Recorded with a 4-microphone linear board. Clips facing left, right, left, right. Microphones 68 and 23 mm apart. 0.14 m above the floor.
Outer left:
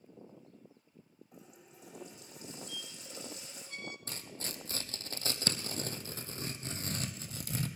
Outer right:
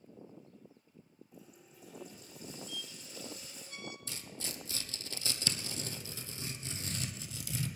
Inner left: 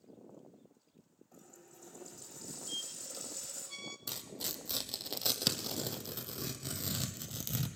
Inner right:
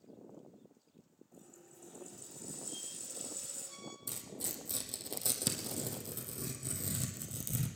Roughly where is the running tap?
Left.